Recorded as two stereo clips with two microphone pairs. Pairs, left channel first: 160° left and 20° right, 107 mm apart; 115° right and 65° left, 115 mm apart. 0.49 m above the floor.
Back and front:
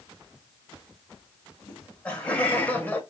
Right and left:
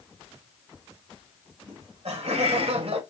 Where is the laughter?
80° left, 2.5 m; by 3.0 s 90° left, 1.6 m.